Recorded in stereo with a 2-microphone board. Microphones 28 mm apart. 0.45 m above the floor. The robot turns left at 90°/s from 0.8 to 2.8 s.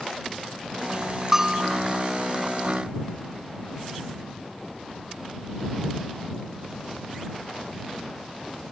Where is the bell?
15° right; by 1.8 s 60° right.